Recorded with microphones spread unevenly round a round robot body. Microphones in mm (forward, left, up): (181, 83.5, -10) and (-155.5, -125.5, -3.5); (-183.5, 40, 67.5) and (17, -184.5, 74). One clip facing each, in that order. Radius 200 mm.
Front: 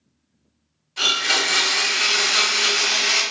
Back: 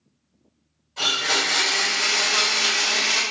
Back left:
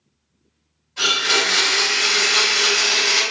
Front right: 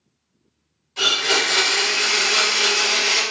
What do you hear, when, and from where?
1.0 s a blender: 35° right, 1.6 m